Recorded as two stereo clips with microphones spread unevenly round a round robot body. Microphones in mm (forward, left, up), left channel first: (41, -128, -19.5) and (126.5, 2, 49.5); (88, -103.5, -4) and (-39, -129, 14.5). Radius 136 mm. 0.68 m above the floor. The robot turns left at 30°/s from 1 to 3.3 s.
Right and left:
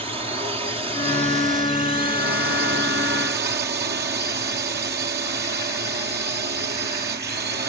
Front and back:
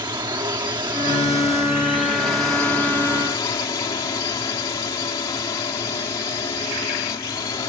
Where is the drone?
130° left; by 7.7 s 65° left.